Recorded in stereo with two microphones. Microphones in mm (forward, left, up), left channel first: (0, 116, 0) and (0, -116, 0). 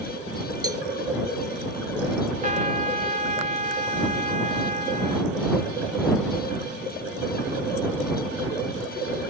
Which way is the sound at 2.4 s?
35° right (ahead or behind).